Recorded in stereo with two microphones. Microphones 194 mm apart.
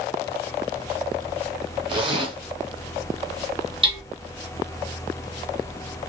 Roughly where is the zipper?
Right.